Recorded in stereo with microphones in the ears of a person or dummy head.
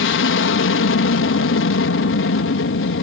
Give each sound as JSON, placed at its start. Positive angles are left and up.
{"t": 0.0, "sound": "an aircraft", "side_deg": 60}